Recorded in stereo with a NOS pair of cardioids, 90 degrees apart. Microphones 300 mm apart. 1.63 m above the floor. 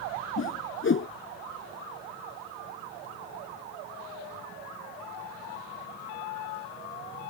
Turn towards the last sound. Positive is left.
turn(degrees=40)